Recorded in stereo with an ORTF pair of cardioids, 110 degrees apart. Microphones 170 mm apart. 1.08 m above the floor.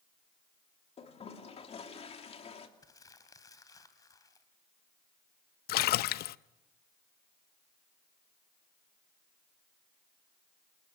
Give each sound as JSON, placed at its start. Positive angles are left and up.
{"t": 1.0, "sound": "a toilet flushing", "azimuth_deg": 35, "distance_m": 3.0}
{"t": 2.8, "sound": "crumpling", "azimuth_deg": 20, "distance_m": 2.5}
{"t": 5.7, "sound": "a splash", "azimuth_deg": 65, "distance_m": 0.6}